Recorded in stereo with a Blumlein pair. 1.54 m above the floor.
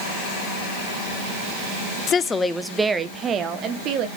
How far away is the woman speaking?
About 0.6 m.